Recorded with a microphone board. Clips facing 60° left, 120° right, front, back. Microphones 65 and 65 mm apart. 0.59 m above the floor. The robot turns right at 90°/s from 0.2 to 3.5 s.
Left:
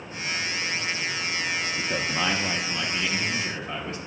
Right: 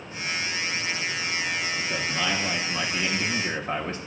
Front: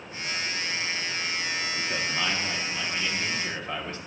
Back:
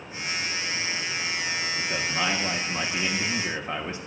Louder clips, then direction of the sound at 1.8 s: Left 1 dB, back 2 dB; 75° left.